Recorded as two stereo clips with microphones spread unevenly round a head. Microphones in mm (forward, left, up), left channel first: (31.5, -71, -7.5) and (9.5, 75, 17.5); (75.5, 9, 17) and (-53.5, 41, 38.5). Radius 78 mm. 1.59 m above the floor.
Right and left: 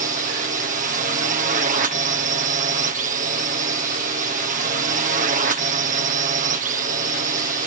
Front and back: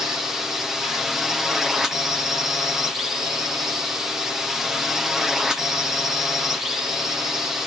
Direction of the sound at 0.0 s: 70° left.